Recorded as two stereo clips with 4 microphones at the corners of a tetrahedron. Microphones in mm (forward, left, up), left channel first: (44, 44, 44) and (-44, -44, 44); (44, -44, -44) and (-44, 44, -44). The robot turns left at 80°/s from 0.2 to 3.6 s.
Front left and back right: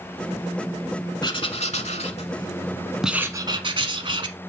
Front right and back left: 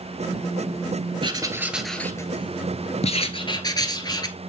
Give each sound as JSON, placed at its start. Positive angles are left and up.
{"t": 1.2, "sound": "writing", "azimuth_deg": 95, "distance_m": 0.8}